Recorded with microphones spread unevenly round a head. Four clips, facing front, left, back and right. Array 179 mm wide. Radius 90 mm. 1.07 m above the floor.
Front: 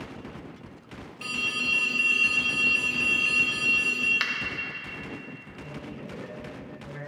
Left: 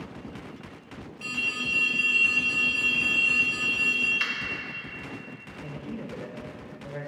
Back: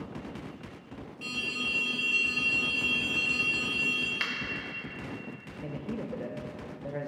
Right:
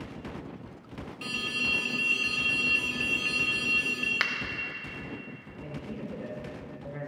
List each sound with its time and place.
1.2 s an alarm: 25° right, 2.5 m
4.2 s a finger snap: 90° right, 0.6 m
5.6 s a man speaking: 175° right, 1.2 m